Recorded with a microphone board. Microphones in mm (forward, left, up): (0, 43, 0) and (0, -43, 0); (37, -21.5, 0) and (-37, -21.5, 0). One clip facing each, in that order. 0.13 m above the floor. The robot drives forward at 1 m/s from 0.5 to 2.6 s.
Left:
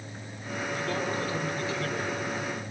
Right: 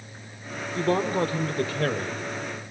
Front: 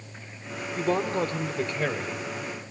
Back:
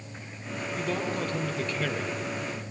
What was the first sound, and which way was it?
A man speaking, 50° right.